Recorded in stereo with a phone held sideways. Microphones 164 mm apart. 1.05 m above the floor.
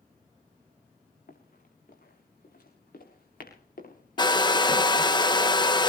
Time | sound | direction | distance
1.3 | running footsteps | 75° left (ahead or behind) | 6.5 m
4.2 | a hair dryer | 30° left (ahead or behind) | 0.8 m